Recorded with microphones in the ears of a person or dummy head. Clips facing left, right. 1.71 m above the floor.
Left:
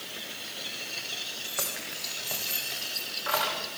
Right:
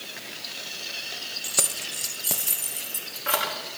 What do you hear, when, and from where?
1.4 s keys jangling: 30° right (ahead or behind), 0.9 m; by 3.6 s 35° right (ahead or behind), 2 m